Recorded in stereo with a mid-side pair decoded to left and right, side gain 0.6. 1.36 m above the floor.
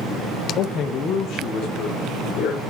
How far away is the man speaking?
About 0.5 m.